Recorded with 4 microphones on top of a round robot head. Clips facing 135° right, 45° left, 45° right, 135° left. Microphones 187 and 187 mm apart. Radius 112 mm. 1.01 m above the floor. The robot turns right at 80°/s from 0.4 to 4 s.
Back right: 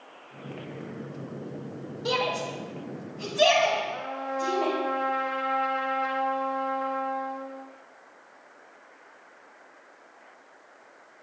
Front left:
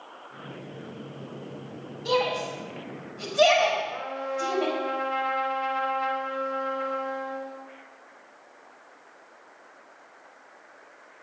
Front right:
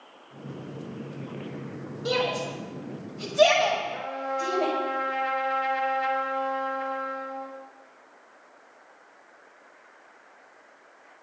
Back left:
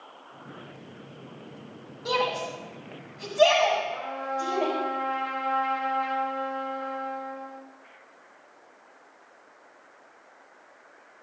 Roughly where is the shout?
Right.